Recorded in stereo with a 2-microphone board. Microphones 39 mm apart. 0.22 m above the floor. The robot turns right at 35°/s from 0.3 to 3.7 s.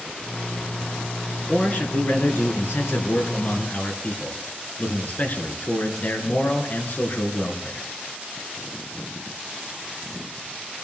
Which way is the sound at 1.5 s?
45° left.